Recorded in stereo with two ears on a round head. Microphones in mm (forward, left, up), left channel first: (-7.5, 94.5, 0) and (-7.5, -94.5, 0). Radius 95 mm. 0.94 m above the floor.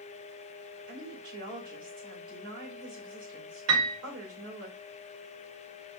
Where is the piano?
70° right (ahead or behind), 1.1 m.